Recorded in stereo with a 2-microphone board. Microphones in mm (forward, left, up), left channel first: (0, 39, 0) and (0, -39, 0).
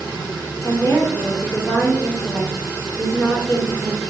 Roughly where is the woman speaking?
Left.